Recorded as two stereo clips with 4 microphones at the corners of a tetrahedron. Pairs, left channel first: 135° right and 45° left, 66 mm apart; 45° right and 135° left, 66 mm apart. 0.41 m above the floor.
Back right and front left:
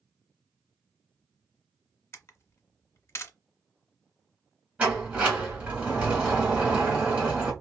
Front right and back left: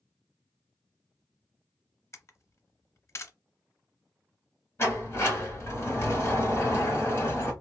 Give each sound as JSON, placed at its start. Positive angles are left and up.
{"t": 2.1, "sound": "a camera shutter", "azimuth_deg": -90, "distance_m": 0.5}
{"t": 4.8, "sound": "a sliding door", "azimuth_deg": -15, "distance_m": 1.3}